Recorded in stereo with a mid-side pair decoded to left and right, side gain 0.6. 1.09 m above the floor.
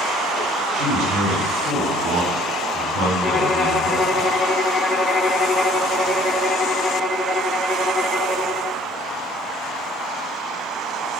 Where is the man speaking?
60° right, 8 m.